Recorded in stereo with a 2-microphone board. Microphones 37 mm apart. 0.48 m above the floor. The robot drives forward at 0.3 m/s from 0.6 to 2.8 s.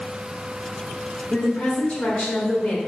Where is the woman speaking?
45° left (ahead or behind), 1.0 m; by 2.8 s 35° left (ahead or behind), 1.3 m.